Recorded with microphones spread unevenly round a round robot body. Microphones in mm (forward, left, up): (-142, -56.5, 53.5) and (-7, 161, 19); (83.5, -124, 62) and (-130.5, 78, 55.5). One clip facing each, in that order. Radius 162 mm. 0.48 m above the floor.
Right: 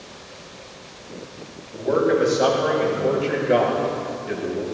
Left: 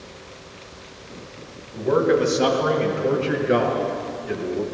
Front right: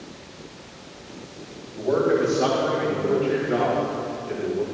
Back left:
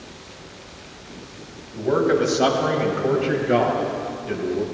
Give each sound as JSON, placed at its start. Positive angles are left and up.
{"t": 1.8, "sound": "a man speaking", "azimuth_deg": 90, "distance_m": 4.0}